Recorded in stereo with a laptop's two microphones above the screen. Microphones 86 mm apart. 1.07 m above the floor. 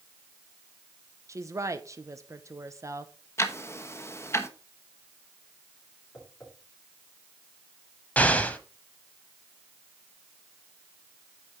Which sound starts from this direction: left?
Ticking, at 3.4 s.